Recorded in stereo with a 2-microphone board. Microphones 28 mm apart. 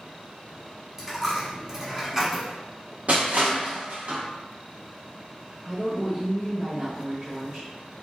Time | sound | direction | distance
1.0 | a dropped coin | 20° right (ahead or behind) | 1.1 m
3.1 | crushing | 60° right (ahead or behind) | 0.8 m
5.7 | a woman speaking | 45° right (ahead or behind) | 0.8 m